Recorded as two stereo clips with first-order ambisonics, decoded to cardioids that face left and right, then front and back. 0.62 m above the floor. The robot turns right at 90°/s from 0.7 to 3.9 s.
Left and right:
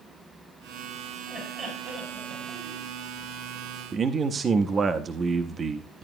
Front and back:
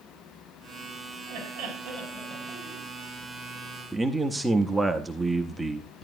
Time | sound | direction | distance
1.3 | laughter | 160° left | 5.5 m
3.9 | a man speaking | 105° right | 0.6 m